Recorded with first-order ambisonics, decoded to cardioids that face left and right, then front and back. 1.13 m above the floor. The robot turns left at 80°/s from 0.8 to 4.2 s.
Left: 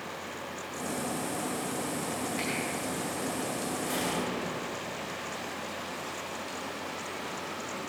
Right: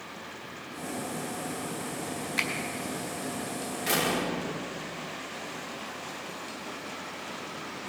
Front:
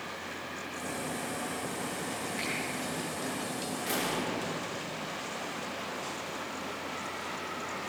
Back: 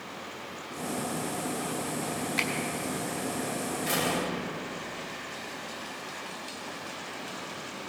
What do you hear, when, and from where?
2.4 s a finger snap: 145° right, 3.5 m; by 2.5 s 155° right, 3.5 m
3.9 s a door slam: 95° right, 1.8 m; by 5.3 s 120° right, 1.8 m